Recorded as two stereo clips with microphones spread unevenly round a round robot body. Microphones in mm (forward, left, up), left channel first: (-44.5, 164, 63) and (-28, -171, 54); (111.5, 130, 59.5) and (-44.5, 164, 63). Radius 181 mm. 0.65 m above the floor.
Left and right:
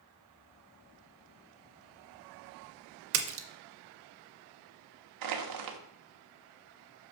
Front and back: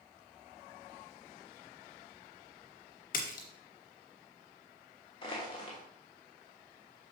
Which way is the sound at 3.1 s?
45° right.